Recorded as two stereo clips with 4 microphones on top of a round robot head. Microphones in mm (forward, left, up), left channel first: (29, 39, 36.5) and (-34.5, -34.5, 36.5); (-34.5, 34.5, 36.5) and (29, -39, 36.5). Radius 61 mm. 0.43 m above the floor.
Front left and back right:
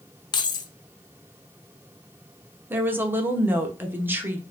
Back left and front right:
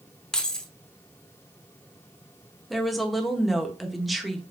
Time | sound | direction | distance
0.3 | keys jangling | 50° left | 0.6 m
2.7 | a woman speaking | 135° right | 0.7 m